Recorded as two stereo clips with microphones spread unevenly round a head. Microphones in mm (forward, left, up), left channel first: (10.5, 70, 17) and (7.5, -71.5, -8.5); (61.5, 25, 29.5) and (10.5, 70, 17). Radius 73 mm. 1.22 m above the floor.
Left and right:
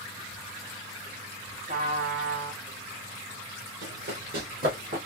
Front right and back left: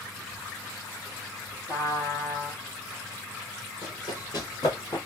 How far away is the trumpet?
About 3 m.